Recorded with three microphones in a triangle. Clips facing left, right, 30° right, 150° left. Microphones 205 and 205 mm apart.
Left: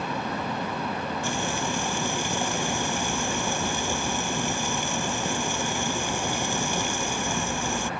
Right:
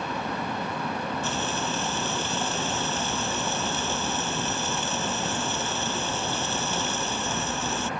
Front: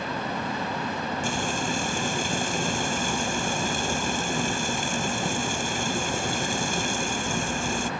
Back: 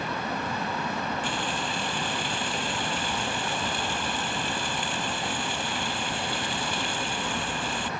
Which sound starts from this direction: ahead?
Frying, at 1.2 s.